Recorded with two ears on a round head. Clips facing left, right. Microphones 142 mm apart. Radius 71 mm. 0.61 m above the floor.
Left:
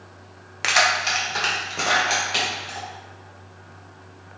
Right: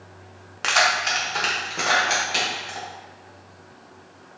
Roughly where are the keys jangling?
Centre.